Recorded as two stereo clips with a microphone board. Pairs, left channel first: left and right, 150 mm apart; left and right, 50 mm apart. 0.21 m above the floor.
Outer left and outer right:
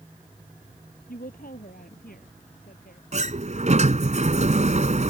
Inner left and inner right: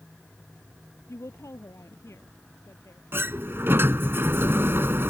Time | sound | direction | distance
1.1 | a woman speaking | 75° left (ahead or behind) | ?
3.1 | a sliding door | 50° right (ahead or behind) | ?